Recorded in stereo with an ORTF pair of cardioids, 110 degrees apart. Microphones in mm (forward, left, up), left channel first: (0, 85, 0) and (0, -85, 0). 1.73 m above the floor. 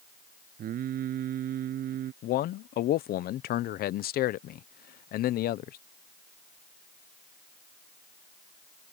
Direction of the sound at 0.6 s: 60° right.